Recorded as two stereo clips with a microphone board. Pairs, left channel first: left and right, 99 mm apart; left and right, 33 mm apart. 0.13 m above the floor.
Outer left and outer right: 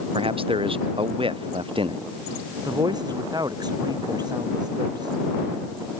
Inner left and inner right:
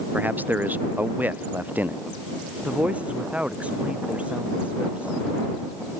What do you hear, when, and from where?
0.1 s a man speaking: 65° right (ahead or behind); by 2.0 s 60° right (ahead or behind)
2.6 s a man speaking: 45° right (ahead or behind)